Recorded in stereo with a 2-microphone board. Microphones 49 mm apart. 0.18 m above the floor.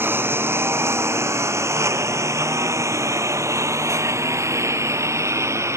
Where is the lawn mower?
50° right (ahead or behind); by 5.8 s 75° right (ahead or behind).